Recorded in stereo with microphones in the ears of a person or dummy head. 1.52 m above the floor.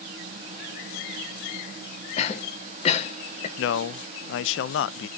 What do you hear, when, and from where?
2.2 s a cough: 40° left (ahead or behind), 1.3 m
3.6 s a man speaking: 80° left, 0.5 m